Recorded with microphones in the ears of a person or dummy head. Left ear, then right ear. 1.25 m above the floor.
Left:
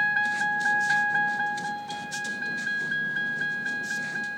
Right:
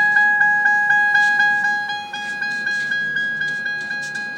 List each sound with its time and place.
0.0 s a vehicle: 35° right (ahead or behind); by 4.4 s 45° right (ahead or behind)